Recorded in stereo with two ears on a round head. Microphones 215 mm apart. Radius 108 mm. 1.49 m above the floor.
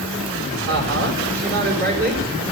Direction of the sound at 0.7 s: 45° right (ahead or behind).